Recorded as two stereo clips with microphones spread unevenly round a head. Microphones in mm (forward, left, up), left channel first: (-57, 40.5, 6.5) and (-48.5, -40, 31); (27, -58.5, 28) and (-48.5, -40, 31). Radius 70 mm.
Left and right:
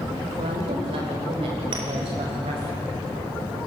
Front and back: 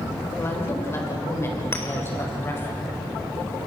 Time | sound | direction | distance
0.4 | a woman speaking | 70° right | 6 m
1.7 | a clink | 75° right | 3.5 m